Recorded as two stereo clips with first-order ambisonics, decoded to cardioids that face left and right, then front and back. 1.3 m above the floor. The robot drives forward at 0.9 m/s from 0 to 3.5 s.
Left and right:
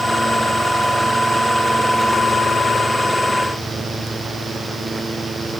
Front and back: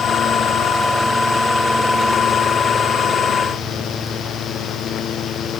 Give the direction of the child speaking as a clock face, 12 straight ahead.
No child speaking in this recording.